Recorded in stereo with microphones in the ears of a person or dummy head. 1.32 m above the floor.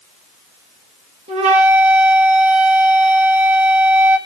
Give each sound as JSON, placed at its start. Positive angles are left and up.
{"t": 1.3, "sound": "a flute", "side_deg": -30, "distance_m": 1.6}